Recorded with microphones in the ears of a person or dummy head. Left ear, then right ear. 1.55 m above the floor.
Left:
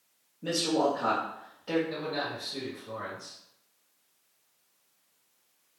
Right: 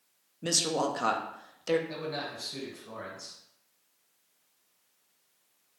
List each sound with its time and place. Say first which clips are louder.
0.4 s a woman speaking: left 1 dB; 75° right (ahead or behind), 0.7 m
1.9 s a man speaking: left 3 dB; 85° right, 1.3 m